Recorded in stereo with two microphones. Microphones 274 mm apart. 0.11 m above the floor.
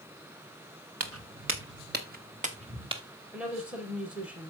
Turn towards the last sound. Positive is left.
turn(degrees=-5)  # may be behind; listen again after turning